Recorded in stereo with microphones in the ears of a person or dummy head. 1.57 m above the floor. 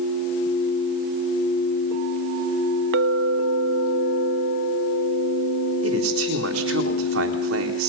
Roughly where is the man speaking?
Right.